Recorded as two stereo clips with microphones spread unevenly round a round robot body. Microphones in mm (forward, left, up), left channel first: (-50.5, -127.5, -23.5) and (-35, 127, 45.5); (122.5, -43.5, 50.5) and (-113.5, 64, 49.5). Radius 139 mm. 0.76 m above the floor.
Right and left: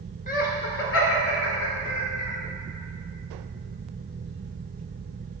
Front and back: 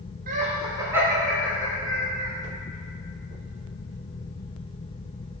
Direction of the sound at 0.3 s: 150° right.